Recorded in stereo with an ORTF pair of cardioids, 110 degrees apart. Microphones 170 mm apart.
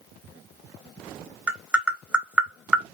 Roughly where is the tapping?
Ahead.